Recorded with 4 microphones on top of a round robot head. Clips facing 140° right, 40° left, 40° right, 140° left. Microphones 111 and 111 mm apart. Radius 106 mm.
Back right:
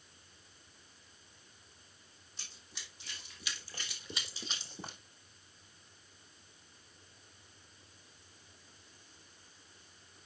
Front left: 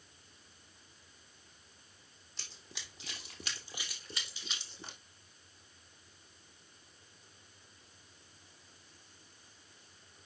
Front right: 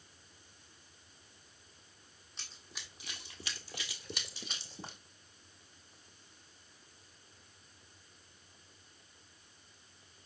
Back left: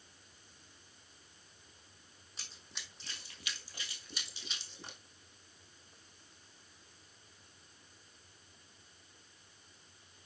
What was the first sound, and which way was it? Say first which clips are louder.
Running footsteps: front left 3 dB, front right 1 dB; 50° left.